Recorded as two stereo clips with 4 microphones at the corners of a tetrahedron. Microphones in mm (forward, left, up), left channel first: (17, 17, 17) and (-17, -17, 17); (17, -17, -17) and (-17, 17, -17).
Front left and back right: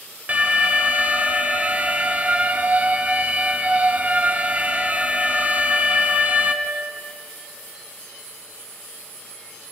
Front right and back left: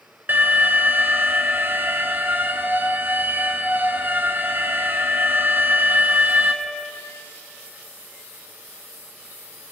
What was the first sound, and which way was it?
An alarm, 170° left.